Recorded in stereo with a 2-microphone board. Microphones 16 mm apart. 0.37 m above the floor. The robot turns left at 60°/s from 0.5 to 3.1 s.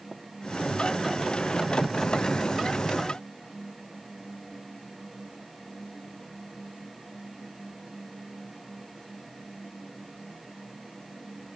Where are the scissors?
I don't hear scissors.